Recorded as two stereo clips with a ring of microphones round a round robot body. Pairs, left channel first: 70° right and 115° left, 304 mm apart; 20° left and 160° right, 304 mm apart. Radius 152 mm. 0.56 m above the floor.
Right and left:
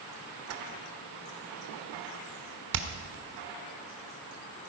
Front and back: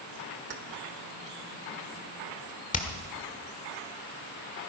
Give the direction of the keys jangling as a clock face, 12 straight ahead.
7 o'clock.